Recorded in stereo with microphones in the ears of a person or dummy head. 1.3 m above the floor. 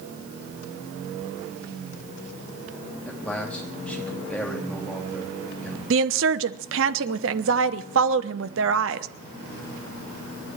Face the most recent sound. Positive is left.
turn(degrees=-65)  # may be behind; listen again after turning